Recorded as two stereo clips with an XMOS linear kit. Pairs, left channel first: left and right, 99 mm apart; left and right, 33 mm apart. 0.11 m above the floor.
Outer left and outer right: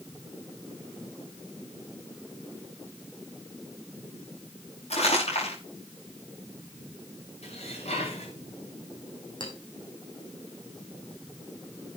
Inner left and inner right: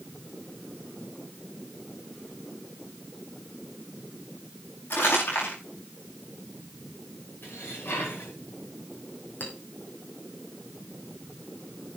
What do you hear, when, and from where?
4.9 s crumpling: 80° left, 7.5 m
7.4 s dishes clattering: 80° left, 8 m
9.4 s a clink: 50° left (ahead or behind), 3 m